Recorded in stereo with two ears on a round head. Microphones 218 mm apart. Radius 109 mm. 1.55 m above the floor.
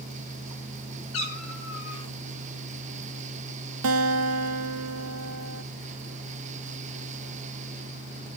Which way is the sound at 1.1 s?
60° left (ahead or behind).